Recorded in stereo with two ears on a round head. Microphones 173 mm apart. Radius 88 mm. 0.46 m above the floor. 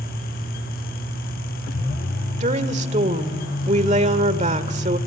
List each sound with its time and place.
2.4 s a woman speaking: 35° right (ahead or behind), 1.5 m